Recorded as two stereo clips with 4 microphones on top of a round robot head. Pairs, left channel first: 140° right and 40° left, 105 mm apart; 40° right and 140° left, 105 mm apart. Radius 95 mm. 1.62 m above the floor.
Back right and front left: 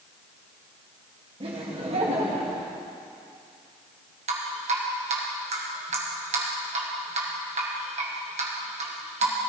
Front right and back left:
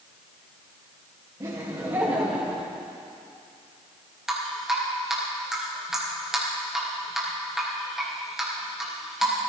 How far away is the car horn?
I don't hear a car horn.